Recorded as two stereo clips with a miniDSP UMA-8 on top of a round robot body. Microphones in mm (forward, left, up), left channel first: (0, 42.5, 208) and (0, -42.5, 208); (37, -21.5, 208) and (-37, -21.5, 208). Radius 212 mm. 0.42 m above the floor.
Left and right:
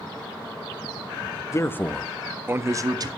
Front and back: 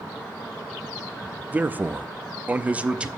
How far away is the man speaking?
About 0.8 m.